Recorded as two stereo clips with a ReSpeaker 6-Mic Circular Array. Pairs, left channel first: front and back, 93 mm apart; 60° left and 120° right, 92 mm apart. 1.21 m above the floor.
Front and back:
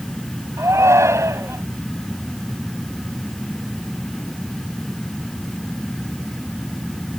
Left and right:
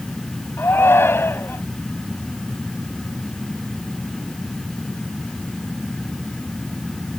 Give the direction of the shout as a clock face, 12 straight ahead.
8 o'clock.